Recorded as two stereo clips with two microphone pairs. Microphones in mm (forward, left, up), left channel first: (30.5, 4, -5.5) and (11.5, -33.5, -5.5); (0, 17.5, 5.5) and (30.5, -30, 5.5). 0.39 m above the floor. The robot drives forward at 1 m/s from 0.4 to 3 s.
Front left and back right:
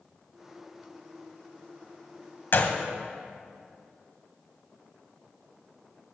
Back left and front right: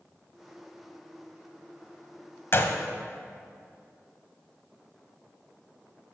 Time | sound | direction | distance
2.5 | a gunshot | 85° left | 1.1 m